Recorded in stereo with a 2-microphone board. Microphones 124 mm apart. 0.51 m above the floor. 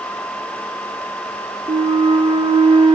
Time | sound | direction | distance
1.7 | a flute | 50° right (ahead or behind) | 0.6 m